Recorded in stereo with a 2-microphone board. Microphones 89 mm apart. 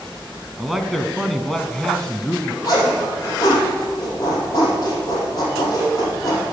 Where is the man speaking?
5° right (ahead or behind), 1.2 m; by 2.5 s 5° left (ahead or behind), 1.2 m.